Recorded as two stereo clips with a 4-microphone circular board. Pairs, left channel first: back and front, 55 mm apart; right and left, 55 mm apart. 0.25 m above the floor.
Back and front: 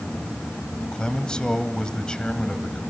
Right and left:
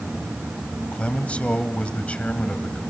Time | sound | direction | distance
0.9 | a man speaking | 125° right | 1.7 m